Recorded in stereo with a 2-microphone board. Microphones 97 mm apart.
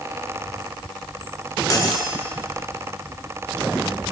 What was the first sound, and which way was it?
Cutlery clinking, 40° left (ahead or behind).